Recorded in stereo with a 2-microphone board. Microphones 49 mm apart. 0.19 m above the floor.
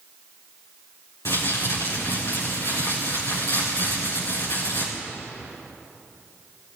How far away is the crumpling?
About 4.5 m.